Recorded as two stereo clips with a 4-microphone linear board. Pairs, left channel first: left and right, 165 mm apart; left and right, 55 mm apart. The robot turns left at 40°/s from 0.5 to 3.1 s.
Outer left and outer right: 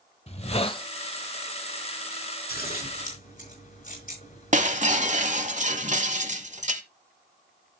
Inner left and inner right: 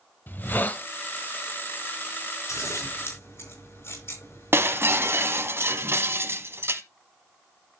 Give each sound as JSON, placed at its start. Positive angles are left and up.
{"t": 0.3, "sound": "a hiss", "side_deg": 40, "distance_m": 1.1}
{"t": 2.5, "sound": "scissors", "side_deg": 75, "distance_m": 5.5}
{"t": 4.5, "sound": "breaking glass", "side_deg": -50, "distance_m": 1.1}